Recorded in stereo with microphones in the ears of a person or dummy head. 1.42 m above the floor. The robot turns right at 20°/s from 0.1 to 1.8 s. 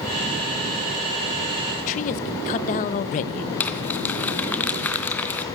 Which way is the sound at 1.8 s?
40° left (ahead or behind).